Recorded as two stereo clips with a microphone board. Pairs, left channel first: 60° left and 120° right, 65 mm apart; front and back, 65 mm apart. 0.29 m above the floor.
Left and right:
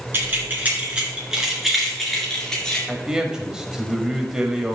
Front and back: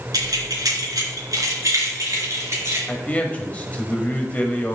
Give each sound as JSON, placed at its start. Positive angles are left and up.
{"t": 0.1, "sound": "keys jangling", "azimuth_deg": -175, "distance_m": 3.0}
{"t": 2.9, "sound": "a man speaking", "azimuth_deg": -50, "distance_m": 1.2}